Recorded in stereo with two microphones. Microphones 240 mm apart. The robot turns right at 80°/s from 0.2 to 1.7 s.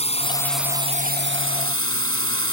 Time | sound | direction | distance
0.0 | a drone | 150° left | ?